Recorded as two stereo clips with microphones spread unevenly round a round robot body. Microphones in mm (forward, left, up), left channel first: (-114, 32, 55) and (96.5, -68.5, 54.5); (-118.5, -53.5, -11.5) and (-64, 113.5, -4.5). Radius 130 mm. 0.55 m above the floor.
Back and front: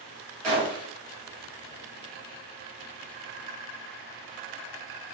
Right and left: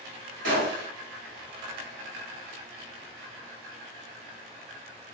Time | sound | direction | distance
0.4 | a gunshot | 65° left | 1.8 m